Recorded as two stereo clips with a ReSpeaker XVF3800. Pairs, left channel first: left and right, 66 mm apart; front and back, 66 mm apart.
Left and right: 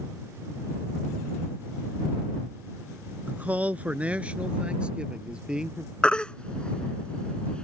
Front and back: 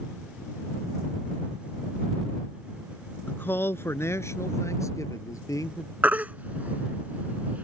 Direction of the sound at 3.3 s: 40° right.